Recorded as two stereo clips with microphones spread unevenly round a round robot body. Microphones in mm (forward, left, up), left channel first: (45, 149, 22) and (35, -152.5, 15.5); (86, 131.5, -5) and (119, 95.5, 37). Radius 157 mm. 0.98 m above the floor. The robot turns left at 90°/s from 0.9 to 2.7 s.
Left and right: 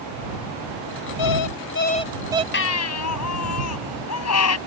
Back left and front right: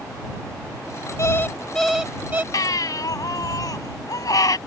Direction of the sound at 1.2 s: 90° left.